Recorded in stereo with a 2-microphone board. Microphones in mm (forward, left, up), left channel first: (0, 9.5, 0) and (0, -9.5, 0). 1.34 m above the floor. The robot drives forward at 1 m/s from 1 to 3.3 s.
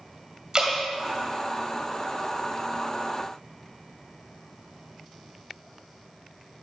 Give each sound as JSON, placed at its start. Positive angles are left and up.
{"t": 0.5, "sound": "dripping", "side_deg": -35, "distance_m": 1.8}